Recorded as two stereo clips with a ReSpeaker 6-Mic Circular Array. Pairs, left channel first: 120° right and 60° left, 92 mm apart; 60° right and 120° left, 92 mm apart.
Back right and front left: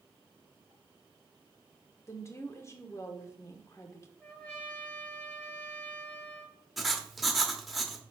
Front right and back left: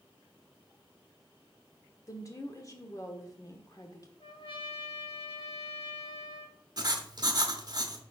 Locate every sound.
2.1 s a woman speaking: 85° right, 1.1 m
4.2 s a trumpet: 40° right, 2 m
6.8 s writing: 145° left, 0.9 m